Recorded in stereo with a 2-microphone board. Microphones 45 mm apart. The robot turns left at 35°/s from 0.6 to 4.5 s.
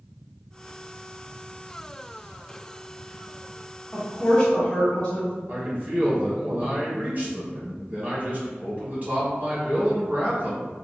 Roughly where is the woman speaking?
Centre.